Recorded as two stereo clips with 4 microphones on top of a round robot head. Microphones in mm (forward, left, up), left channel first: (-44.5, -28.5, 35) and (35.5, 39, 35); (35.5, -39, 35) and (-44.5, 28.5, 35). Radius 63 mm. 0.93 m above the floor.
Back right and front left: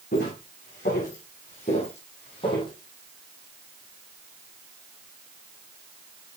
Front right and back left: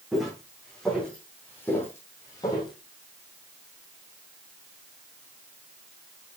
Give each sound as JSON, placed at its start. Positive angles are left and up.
{"t": 0.1, "sound": "footsteps", "azimuth_deg": -130, "distance_m": 3.5}